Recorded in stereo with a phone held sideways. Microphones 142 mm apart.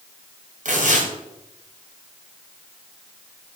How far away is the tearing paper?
About 2.5 m.